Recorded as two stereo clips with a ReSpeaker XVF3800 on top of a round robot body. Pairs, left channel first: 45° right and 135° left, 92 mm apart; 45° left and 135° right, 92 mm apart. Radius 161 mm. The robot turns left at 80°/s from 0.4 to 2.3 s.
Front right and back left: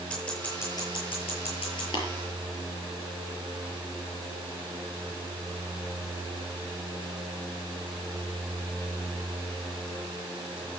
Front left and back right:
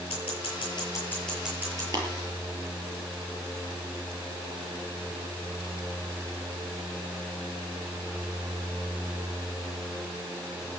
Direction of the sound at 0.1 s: 35° left.